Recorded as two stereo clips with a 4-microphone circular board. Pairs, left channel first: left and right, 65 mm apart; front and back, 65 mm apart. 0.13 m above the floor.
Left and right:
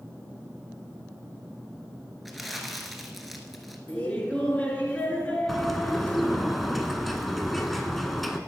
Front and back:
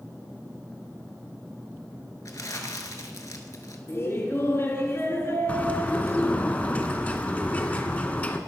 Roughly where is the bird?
Ahead.